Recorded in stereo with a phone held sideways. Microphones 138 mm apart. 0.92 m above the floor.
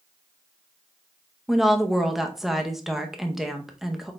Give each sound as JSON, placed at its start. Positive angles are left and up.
{"t": 1.5, "sound": "a woman speaking", "side_deg": 0, "distance_m": 0.8}